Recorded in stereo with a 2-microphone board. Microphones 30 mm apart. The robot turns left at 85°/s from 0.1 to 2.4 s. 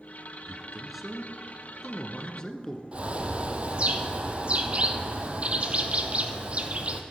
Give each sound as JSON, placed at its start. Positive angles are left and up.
{"t": 0.5, "sound": "a man speaking", "side_deg": -20, "distance_m": 1.1}
{"t": 2.9, "sound": "a bird", "side_deg": -40, "distance_m": 0.9}